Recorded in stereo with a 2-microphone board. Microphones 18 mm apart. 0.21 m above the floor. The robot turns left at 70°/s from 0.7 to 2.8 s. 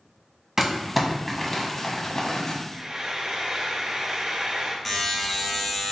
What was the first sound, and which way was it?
Crumpling, 20° right (ahead or behind).